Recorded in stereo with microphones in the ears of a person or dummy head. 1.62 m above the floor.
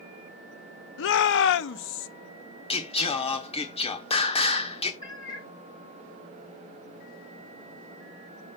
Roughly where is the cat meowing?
Centre.